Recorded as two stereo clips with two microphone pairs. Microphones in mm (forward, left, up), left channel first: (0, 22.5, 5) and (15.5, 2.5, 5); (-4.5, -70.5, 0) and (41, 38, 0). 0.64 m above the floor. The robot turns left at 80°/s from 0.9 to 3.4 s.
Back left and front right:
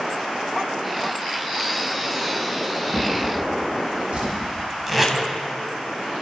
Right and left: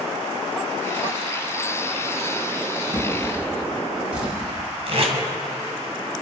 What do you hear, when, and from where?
2.9 s a drawer: 25° left, 7 m; by 4.3 s 15° right, 7 m
4.9 s tape being pulled: 35° left, 2.5 m